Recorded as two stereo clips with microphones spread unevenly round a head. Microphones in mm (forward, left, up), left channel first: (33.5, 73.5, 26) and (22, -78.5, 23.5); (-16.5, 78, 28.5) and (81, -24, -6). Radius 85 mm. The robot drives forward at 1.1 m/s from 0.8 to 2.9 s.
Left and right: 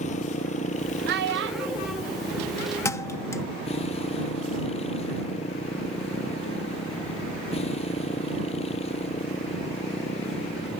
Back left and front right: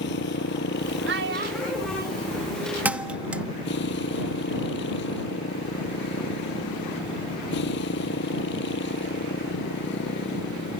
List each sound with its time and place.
0.0 s a motorcycle: 140° left; by 10.8 s 145° left
1.1 s a child speaking: 70° right; by 2.0 s 120° right
2.9 s a thud: 50° left; by 3.4 s 65° left